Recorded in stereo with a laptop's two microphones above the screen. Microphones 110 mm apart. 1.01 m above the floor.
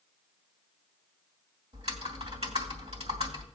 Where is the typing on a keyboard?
70° right (ahead or behind), 2 m.